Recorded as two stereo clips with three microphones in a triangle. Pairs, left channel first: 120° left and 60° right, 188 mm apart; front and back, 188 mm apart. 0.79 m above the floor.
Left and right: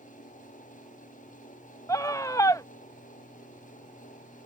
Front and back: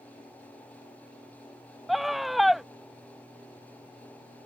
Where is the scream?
90° left.